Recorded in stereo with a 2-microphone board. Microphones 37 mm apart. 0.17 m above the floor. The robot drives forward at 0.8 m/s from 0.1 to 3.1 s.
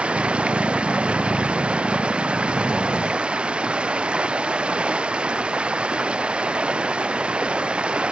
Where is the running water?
35° right (ahead or behind); by 8.1 s 30° right (ahead or behind).